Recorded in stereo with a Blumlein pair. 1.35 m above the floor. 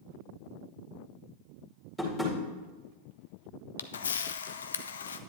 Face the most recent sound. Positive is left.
turn(degrees=65)